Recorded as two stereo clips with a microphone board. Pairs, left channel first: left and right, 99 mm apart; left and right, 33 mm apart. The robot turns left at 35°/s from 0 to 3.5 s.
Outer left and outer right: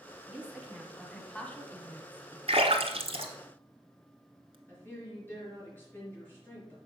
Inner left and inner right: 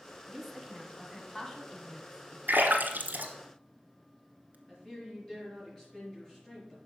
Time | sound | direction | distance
0.3 | a woman speaking | 165° right | 1.4 m
2.5 | a splash | 70° right (ahead or behind) | 1.1 m
4.7 | a woman speaking | 20° left (ahead or behind) | 4.5 m